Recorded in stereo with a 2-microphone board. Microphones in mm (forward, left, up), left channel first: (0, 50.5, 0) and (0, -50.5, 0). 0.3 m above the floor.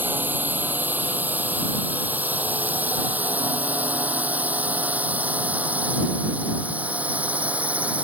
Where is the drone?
15° right (ahead or behind).